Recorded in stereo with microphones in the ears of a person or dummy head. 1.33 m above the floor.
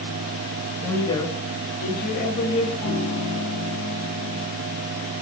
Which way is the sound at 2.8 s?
45° left (ahead or behind).